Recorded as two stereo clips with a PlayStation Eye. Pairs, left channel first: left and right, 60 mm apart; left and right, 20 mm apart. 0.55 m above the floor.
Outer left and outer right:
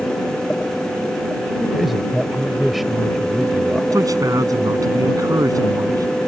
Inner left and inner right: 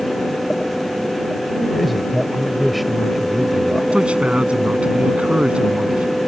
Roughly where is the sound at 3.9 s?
Right.